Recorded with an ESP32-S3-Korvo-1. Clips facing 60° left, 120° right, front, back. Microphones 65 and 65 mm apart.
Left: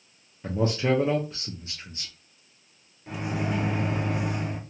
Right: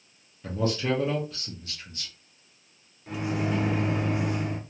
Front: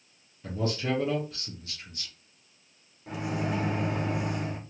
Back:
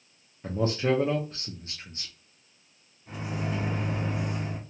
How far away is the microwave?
About 1.0 m.